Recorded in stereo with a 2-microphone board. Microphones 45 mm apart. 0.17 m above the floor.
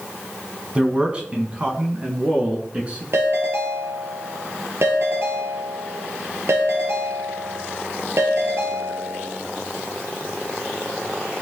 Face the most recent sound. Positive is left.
turn(degrees=-65)  # may be behind; listen again after turning